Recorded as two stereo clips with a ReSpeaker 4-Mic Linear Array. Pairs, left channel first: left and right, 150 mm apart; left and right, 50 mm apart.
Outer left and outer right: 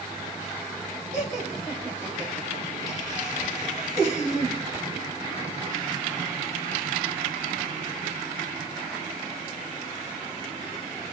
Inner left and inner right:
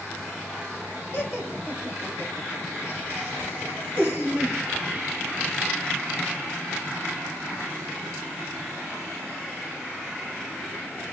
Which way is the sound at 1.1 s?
25° right (ahead or behind).